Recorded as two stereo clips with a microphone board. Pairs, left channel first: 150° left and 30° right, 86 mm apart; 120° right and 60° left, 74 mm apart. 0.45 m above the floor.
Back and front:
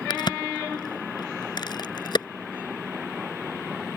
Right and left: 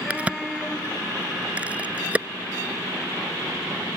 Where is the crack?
130° left.